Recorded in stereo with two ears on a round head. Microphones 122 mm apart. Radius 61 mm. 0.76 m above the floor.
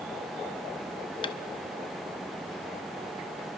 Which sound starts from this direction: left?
Tapping, at 1.2 s.